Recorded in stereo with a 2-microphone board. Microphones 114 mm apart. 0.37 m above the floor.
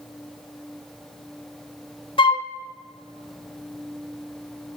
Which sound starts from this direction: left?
A flute, at 2.2 s.